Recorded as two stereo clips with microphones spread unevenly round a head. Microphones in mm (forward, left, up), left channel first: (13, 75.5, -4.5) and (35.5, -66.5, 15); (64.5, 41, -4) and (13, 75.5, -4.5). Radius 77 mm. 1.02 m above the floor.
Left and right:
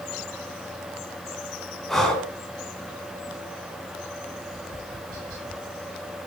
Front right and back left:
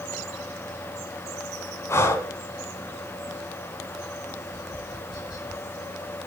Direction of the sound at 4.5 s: 60° right.